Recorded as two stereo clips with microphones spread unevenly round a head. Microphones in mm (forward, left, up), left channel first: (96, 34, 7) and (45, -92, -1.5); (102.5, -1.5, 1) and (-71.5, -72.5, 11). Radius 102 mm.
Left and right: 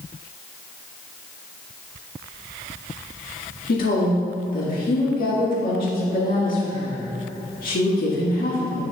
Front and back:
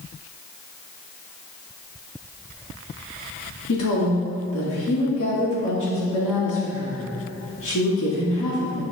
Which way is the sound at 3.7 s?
50° left.